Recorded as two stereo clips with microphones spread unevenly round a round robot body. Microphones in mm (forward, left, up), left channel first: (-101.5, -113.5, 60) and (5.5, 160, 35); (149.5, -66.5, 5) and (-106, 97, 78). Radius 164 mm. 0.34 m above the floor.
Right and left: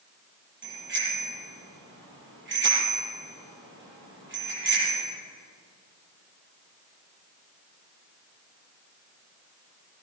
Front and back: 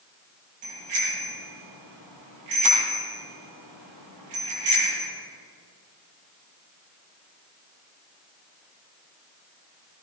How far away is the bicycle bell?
About 7.5 m.